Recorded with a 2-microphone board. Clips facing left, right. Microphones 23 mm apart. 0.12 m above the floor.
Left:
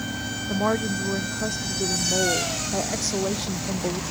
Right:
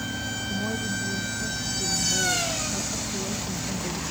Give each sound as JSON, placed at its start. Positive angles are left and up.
{"t": 0.5, "sound": "a woman speaking", "side_deg": 70}